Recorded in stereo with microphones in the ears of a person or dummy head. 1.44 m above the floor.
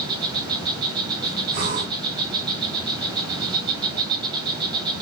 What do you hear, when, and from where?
0.0 s an insect: 30° right (ahead or behind), 1.5 m
1.5 s breathing: 50° right (ahead or behind), 2 m